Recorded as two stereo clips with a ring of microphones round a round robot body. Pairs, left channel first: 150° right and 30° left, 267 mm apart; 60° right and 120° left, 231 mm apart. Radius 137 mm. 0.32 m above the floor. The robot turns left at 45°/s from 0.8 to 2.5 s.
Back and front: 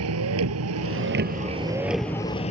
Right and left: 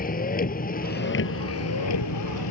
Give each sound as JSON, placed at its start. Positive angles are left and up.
{"t": 0.0, "sound": "a vehicle", "azimuth_deg": -5}